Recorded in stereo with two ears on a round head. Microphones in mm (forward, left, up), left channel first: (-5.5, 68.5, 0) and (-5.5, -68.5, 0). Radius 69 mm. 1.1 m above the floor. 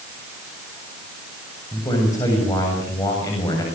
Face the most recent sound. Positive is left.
turn(degrees=20)  # may be behind; listen again after turning